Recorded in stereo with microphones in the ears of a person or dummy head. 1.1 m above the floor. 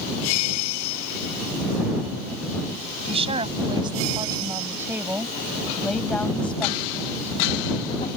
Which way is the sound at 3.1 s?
25° right (ahead or behind).